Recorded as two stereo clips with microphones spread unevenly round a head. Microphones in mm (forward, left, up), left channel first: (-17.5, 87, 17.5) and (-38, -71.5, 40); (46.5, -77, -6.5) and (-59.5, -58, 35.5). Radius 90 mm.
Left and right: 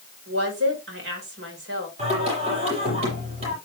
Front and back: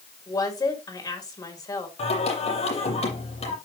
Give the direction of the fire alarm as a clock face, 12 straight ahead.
No fire alarm in this recording.